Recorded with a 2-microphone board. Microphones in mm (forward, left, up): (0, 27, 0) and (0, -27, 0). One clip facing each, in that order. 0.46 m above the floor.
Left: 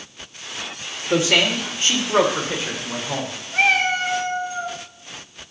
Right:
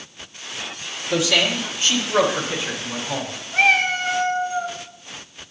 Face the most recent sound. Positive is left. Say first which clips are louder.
# right 1 dB
turn(degrees=20)  # may be behind; listen again after turning